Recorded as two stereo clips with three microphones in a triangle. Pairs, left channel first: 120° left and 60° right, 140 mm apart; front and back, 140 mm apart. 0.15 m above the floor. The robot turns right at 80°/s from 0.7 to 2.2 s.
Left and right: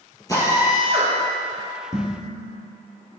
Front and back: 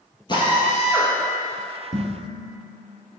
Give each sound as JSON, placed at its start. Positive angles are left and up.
{"t": 0.3, "sound": "a drill", "azimuth_deg": 55, "distance_m": 2.5}
{"t": 1.9, "sound": "dishes clattering", "azimuth_deg": -175, "distance_m": 2.5}